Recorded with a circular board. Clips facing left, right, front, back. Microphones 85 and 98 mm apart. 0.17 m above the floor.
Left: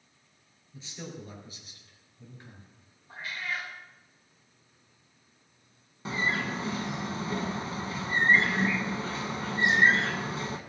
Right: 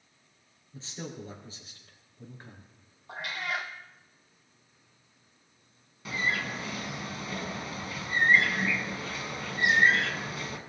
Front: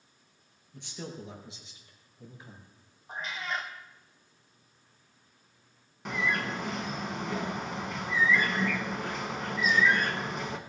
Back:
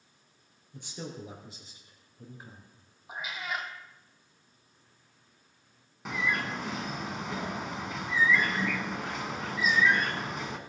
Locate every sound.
0.7 s a man speaking: 150° right, 3.5 m; by 2.7 s 135° right, 2.5 m
3.1 s a cat meowing: 100° right, 1.5 m
6.0 s a bird: 90° left, 1.0 m